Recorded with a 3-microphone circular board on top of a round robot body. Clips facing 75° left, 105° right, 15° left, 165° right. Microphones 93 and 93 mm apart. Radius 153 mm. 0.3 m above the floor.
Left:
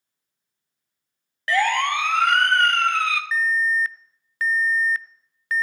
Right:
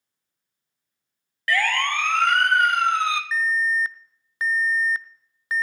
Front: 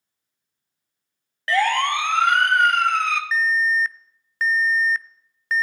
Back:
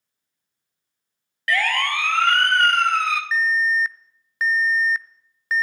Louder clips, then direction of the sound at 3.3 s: Left 1 dB, even; 90° right.